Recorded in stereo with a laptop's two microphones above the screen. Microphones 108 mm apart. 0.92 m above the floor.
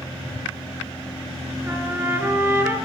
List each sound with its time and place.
1.7 s a trumpet: 20° right (ahead or behind), 7 m